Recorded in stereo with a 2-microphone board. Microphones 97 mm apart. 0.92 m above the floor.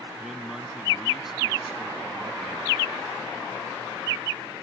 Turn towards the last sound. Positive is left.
turn(degrees=-5)  # may be behind; listen again after turning